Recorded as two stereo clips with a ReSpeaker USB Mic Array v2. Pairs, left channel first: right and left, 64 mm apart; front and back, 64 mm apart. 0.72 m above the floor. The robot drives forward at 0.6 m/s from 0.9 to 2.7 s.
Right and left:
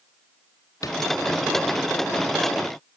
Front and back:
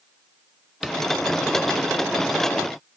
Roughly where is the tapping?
Right.